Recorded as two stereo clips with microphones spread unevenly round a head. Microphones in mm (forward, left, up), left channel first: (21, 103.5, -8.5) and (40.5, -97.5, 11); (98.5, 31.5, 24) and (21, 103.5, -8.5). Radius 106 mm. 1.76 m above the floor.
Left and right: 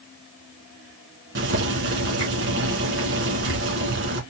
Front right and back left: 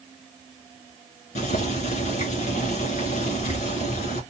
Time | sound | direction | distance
1.4 | boiling | 50° right | 2.5 m